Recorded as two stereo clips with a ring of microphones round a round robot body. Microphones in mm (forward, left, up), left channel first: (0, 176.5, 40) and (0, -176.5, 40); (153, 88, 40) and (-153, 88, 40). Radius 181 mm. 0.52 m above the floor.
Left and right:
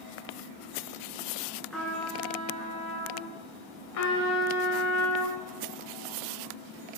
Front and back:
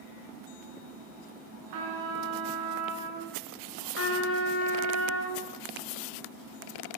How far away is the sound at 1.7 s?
About 1.2 m.